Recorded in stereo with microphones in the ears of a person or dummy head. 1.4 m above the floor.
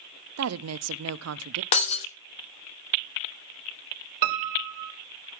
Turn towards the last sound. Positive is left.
turn(degrees=-50)  # may be behind; listen again after turning